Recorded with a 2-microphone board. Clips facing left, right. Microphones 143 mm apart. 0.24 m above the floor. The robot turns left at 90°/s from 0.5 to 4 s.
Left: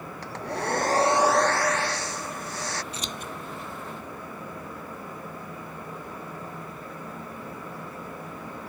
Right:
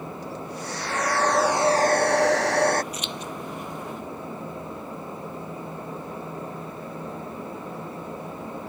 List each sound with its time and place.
0.2 s a hair dryer: 75° left; by 2.8 s 130° right
2.9 s scissors: 30° left (ahead or behind); by 3.3 s 60° left (ahead or behind)